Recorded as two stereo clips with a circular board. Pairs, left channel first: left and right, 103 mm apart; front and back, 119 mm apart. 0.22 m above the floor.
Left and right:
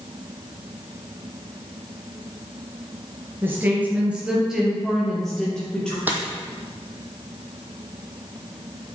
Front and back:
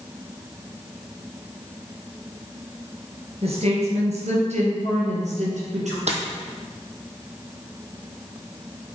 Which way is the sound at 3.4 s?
155° right.